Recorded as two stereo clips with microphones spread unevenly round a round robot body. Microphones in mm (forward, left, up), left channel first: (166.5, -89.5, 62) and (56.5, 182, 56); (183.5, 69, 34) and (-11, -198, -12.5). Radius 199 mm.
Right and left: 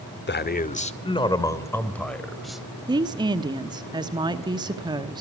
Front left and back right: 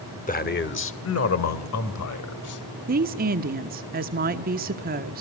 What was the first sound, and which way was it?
A man speaking, 15° right.